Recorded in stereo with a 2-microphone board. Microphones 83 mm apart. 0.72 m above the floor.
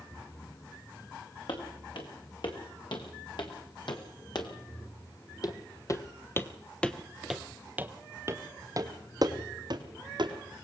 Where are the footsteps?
75° left (ahead or behind), 4 m; by 10.3 s 60° right (ahead or behind), 2.5 m.